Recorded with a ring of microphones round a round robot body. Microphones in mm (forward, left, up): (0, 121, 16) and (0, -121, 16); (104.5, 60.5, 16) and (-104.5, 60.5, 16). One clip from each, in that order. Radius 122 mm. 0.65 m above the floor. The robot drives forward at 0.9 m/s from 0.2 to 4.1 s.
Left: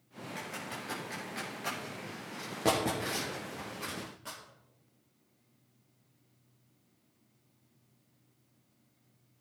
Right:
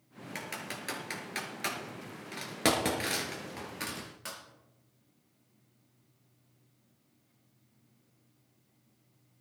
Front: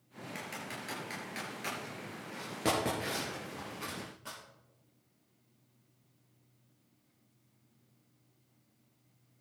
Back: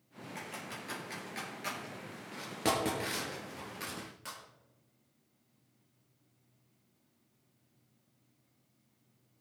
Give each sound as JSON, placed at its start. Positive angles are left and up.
{"t": 0.3, "sound": "typing on a keyboard", "azimuth_deg": -65, "distance_m": 3.5}